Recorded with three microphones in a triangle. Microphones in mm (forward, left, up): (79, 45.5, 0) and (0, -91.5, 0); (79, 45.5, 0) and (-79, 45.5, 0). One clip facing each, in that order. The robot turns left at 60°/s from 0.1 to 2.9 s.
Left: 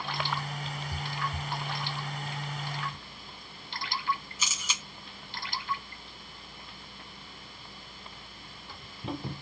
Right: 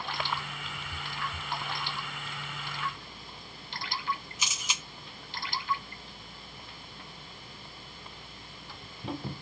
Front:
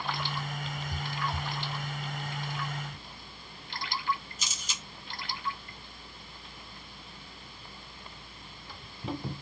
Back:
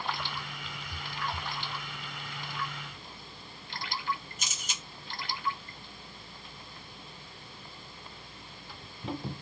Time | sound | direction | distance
4.4 | a camera shutter | 170° left | 1.7 m